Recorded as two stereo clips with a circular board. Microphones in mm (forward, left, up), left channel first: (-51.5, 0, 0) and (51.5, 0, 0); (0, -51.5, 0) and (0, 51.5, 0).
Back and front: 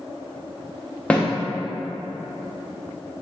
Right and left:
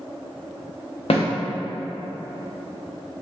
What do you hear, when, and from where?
1.1 s a snare drum: 100° right, 0.8 m